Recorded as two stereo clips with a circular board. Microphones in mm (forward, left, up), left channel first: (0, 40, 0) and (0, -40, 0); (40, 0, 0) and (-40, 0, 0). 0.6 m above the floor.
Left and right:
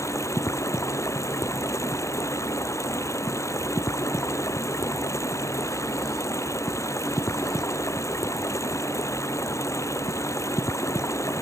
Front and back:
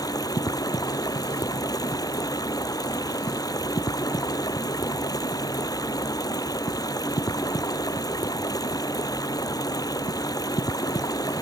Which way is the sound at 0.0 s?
40° left.